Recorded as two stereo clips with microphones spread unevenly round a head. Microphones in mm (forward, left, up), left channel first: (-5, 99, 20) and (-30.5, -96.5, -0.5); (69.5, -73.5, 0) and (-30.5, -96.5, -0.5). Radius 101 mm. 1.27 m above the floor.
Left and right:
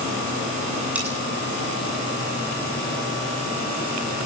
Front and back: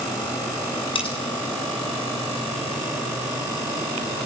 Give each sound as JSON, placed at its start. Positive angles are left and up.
{"t": 0.9, "sound": "cutlery clinking", "azimuth_deg": -15, "distance_m": 9.0}